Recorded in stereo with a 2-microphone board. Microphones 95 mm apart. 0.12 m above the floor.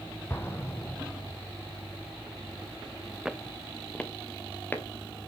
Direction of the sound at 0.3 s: 25° left (ahead or behind).